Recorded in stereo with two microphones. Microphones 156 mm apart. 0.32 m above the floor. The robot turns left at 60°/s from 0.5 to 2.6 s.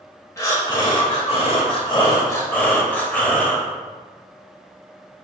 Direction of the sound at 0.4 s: 145° left.